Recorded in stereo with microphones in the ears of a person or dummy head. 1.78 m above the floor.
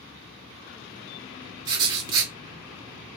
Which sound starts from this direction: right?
Writing, at 1.6 s.